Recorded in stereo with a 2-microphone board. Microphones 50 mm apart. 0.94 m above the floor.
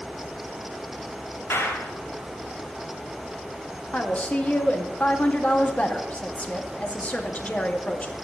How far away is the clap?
About 3.5 m.